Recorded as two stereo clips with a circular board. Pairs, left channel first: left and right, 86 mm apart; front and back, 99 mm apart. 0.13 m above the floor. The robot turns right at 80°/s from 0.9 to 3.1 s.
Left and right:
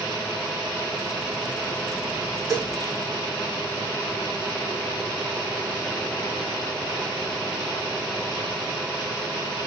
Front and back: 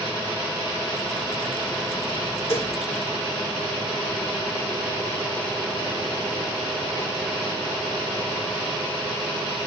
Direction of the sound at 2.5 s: Straight ahead.